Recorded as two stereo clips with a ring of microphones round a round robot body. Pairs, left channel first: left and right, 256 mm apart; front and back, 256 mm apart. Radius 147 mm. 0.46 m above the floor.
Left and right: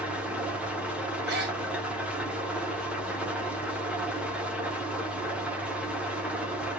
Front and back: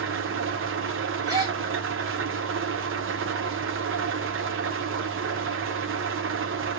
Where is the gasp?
110° right, 1.7 m.